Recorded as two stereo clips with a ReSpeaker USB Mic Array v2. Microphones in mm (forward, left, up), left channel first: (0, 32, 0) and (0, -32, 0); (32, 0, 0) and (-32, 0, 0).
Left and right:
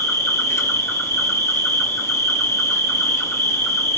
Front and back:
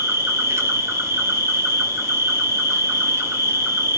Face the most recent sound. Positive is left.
turn(degrees=135)